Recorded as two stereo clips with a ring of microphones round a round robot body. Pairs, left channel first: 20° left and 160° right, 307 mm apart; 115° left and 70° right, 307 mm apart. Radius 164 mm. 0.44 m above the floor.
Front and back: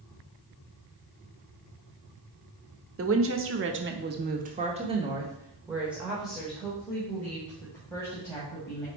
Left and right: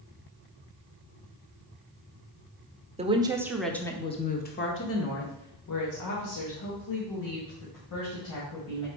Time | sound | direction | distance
3.0 | a woman speaking | 130° right | 1.0 m